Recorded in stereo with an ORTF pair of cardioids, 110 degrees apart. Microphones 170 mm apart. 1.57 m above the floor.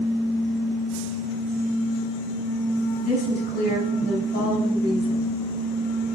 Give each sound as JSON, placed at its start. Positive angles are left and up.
{"t": 3.0, "sound": "a woman speaking", "azimuth_deg": 70, "distance_m": 4.5}